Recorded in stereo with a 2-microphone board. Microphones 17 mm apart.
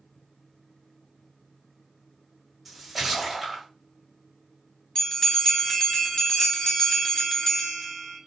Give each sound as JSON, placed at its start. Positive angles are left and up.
{"t": 2.6, "sound": "a splash", "side_deg": -15, "distance_m": 1.7}
{"t": 5.0, "sound": "a bell", "side_deg": 35, "distance_m": 1.1}